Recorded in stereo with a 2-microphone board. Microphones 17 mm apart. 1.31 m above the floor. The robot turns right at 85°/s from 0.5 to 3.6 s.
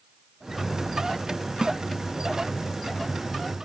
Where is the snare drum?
40° right (ahead or behind); by 1.8 s 55° right (ahead or behind).